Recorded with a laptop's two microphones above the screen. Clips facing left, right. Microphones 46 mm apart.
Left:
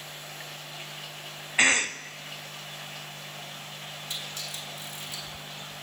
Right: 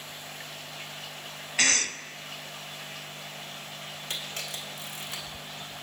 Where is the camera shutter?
65° right (ahead or behind), 2.5 m.